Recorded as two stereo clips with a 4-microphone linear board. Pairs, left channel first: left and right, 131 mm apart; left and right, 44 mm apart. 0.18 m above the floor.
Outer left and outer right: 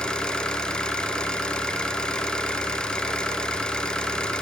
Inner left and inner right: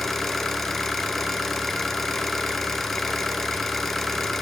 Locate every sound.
0.0 s an engine running: 5° left (ahead or behind), 1.2 m